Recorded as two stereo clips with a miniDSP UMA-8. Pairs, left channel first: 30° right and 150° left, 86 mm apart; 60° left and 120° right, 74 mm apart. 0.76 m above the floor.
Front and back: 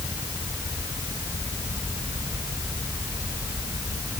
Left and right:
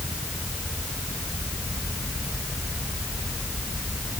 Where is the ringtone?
I don't hear a ringtone.